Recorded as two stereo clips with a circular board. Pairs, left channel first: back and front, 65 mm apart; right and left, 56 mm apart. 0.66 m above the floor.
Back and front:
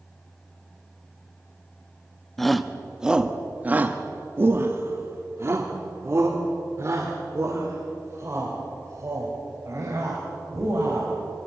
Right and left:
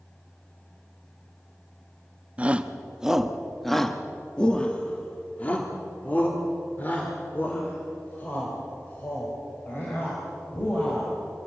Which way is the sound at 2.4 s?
100° left.